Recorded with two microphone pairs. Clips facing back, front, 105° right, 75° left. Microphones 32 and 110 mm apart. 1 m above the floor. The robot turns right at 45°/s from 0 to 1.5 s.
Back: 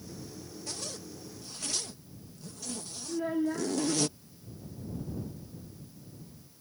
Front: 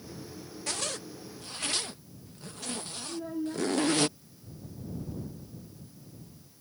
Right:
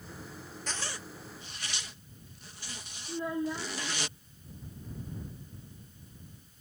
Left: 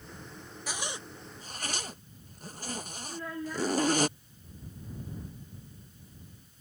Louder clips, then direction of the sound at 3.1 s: Back 5 dB, right 5 dB; 175° right.